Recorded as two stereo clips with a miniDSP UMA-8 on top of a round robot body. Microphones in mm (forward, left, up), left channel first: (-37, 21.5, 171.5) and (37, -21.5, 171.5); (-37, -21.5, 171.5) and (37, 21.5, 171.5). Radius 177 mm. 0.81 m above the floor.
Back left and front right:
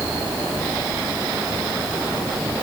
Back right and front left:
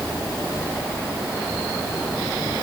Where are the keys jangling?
No keys jangling in this recording.